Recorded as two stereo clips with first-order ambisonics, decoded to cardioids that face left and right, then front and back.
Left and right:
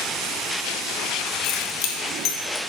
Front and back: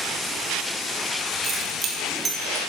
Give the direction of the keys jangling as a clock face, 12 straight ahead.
8 o'clock.